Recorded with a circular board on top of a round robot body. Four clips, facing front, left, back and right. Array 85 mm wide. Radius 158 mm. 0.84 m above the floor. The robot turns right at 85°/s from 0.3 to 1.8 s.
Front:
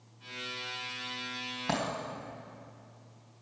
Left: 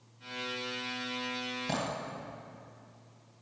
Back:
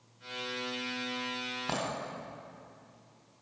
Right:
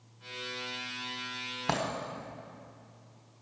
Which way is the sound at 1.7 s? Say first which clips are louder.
Right 4 dB, front 3 dB; 90° right.